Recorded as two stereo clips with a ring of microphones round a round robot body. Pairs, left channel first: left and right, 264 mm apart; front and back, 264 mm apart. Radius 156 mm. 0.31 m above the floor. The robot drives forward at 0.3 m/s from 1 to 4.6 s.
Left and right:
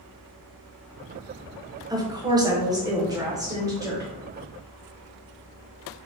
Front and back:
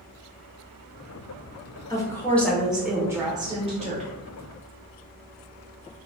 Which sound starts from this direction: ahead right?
A woman speaking, at 1.9 s.